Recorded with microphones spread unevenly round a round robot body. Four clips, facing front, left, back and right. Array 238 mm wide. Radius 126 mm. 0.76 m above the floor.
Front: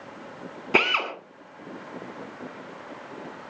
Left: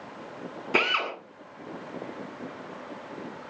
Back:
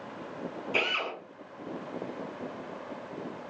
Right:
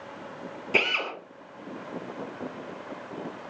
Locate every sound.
0.7 s a drill: 5° left, 9.5 m